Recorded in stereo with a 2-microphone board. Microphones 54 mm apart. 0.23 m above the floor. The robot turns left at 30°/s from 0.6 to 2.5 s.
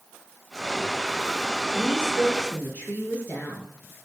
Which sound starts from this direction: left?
A woman speaking, at 1.8 s.